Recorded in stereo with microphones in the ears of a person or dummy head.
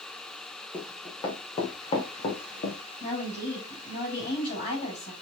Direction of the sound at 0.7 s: 20° left (ahead or behind).